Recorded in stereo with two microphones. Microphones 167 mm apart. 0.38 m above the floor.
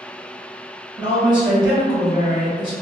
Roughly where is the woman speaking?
Right.